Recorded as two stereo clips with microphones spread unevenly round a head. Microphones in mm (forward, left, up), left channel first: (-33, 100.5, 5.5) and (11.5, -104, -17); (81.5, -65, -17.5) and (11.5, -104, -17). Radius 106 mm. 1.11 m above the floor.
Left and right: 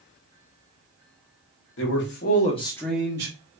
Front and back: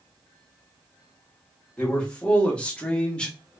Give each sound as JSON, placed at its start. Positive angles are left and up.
{"t": 1.8, "sound": "a man speaking", "azimuth_deg": 105, "distance_m": 0.9}